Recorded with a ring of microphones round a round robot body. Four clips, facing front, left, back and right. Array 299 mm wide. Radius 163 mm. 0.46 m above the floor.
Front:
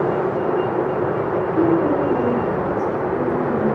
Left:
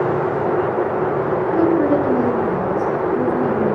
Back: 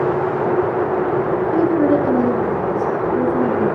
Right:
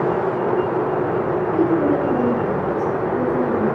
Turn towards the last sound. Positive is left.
turn(degrees=135)